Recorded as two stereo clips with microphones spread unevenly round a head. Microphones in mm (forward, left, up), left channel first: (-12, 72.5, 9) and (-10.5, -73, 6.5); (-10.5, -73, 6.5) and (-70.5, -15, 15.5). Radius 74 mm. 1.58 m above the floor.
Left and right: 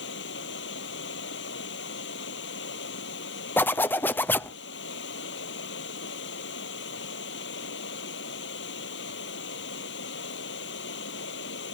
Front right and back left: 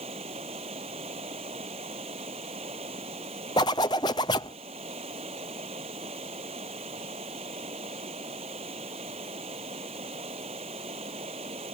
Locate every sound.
0.0 s running water: 95° left
3.6 s a zipper: 10° left